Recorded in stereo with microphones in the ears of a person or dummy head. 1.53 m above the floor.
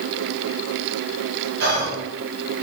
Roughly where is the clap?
No clap in this recording.